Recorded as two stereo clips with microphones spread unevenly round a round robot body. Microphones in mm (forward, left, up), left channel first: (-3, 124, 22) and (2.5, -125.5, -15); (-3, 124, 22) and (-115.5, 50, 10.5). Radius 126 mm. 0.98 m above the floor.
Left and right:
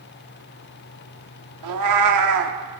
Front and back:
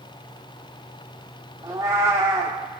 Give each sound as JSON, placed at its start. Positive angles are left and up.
{"t": 1.6, "sound": "a cat meowing", "azimuth_deg": -70, "distance_m": 1.2}